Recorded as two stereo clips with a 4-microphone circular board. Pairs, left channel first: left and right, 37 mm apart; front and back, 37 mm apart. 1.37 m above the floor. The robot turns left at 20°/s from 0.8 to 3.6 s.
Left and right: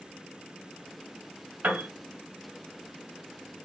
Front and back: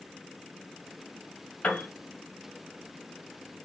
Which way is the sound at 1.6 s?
55° right.